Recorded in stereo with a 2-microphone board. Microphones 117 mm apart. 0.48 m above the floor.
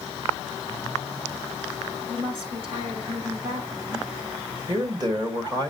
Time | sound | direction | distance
2.1 | a woman speaking | 50° right (ahead or behind) | 4.5 m
4.7 | a man speaking | 35° right (ahead or behind) | 1.9 m